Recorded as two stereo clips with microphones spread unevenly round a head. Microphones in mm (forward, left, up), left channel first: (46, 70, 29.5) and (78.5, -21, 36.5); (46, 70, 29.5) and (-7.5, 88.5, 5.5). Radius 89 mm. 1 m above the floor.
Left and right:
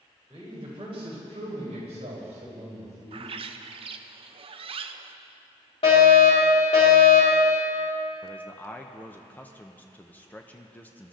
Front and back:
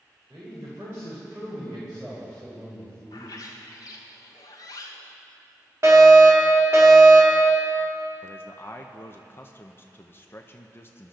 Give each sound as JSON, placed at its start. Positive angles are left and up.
{"t": 0.3, "sound": "a man speaking", "azimuth_deg": -135, "distance_m": 3.5}
{"t": 3.1, "sound": "a bird", "azimuth_deg": -75, "distance_m": 0.7}
{"t": 5.8, "sound": "a fire alarm", "azimuth_deg": 140, "distance_m": 4.5}
{"t": 8.2, "sound": "a man speaking", "azimuth_deg": 45, "distance_m": 0.9}